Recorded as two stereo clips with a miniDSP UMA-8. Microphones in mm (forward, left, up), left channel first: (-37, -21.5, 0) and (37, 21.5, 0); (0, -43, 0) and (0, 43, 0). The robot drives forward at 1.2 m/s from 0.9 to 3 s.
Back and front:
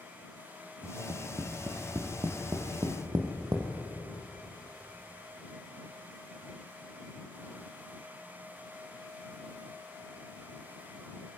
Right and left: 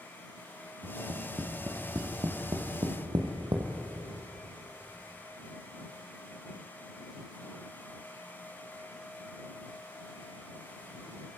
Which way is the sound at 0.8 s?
45° left.